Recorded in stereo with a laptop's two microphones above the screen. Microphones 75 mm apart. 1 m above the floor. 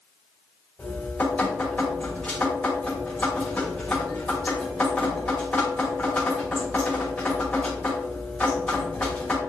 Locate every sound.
0.8 s dripping: 15° left (ahead or behind), 2.5 m